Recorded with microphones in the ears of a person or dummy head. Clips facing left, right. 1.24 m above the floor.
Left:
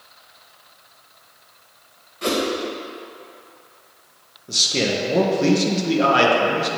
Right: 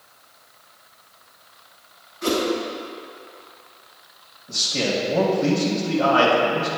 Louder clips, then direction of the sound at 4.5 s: Left 2 dB; 45° left (ahead or behind).